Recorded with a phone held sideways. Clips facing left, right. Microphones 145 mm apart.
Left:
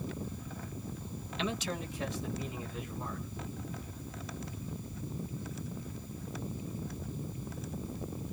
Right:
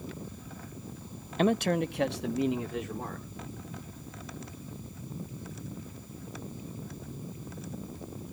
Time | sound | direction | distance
1.4 | a man speaking | 45° right (ahead or behind) | 0.6 m